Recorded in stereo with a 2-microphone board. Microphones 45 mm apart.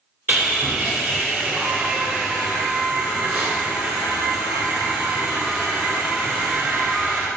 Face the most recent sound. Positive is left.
turn(degrees=-40)  # may be behind; listen again after turning